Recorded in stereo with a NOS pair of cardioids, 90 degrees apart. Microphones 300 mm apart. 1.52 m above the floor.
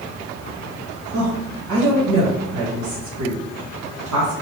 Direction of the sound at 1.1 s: 65° right.